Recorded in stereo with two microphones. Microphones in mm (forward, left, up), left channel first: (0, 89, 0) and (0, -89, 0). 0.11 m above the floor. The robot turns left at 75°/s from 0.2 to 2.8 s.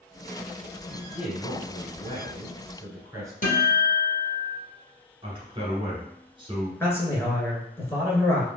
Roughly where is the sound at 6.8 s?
Centre.